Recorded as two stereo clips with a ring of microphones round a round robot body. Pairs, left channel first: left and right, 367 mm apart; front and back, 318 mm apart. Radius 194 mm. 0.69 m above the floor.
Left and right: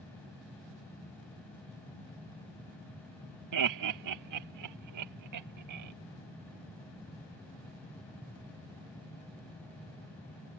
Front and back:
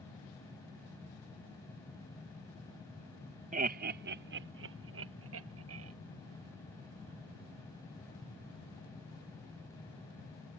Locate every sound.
3.5 s laughter: 115° right; by 5.9 s 130° right